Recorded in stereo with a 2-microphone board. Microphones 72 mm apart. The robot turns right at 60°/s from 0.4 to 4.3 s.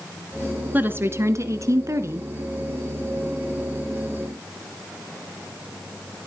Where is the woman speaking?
145° right, 1.7 m; by 2.3 s 50° right, 1.7 m.